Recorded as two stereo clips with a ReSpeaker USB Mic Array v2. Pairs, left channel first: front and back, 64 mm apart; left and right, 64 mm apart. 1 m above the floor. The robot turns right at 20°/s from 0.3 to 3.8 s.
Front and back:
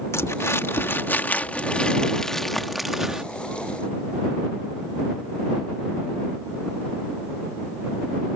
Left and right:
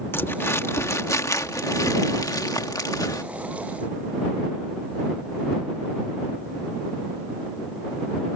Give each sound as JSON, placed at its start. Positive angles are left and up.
{"t": 0.1, "sound": "crumpling", "azimuth_deg": 40}